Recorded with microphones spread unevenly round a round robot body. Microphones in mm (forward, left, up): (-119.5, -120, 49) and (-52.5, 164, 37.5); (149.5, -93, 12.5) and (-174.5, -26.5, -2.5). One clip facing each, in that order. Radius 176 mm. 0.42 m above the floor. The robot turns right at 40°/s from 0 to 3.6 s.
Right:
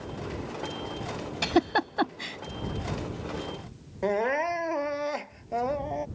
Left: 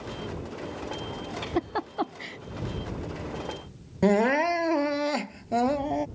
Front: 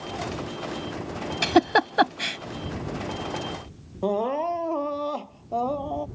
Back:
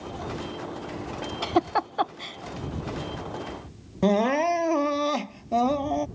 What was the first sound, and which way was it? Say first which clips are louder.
A giggle: right 5 dB, front 5 dB; 60° right.